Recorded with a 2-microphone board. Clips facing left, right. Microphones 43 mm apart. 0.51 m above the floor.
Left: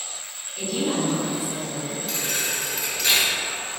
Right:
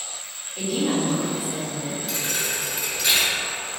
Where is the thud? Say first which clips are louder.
Left 1 dB; 5° right (ahead or behind), 0.8 m.